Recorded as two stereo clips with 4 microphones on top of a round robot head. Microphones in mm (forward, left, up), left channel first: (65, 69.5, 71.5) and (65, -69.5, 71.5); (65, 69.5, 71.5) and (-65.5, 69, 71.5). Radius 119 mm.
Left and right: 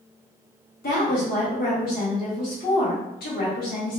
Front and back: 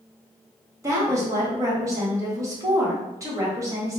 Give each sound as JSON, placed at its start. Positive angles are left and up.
{"t": 0.8, "sound": "a woman speaking", "azimuth_deg": 115, "distance_m": 1.5}